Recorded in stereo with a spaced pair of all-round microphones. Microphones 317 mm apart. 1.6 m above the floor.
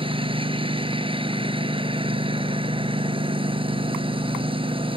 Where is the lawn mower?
15° right (ahead or behind).